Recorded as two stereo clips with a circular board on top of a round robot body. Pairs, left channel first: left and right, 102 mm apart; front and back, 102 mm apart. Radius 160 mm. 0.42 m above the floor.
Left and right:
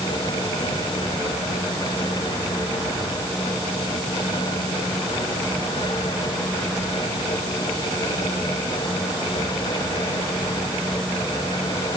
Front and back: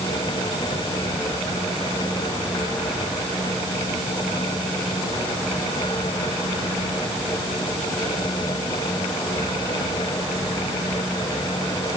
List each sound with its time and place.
Only background noise.